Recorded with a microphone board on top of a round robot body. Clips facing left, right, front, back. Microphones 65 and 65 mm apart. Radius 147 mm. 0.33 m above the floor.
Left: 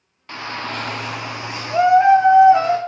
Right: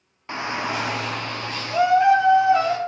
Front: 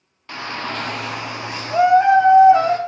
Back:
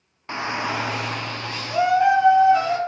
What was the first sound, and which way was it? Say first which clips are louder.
A shout: right 2 dB, back 2 dB; 140° right.